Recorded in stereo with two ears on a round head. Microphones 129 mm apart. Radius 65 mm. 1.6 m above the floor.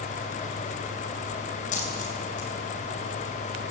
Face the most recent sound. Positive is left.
turn(degrees=55)  # may be behind; listen again after turning